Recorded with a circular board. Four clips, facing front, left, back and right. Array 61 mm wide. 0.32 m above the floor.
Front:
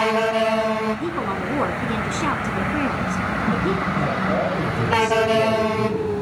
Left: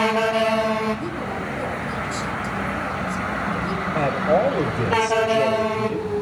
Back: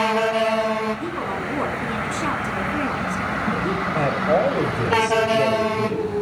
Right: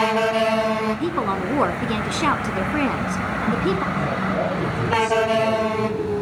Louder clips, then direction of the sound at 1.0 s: Right 5 dB, front 2 dB; 80° right.